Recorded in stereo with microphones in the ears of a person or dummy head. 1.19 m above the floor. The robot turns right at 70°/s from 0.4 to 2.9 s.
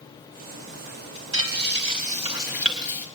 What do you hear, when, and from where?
1.3 s frying: 95° right, 4 m; by 3.0 s 15° left, 4 m